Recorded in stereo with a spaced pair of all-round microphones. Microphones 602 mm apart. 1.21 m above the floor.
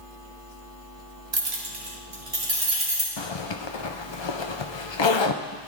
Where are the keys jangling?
45° right (ahead or behind), 0.9 m; by 3.1 s 70° right (ahead or behind), 3 m.